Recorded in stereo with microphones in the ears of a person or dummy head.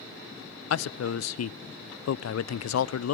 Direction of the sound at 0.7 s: 75° left (ahead or behind).